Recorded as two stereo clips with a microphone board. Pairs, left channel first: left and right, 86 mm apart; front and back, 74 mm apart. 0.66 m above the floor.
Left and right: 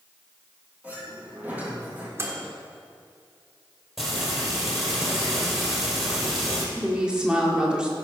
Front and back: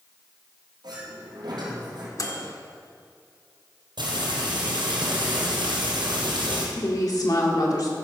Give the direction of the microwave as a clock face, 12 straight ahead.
1 o'clock.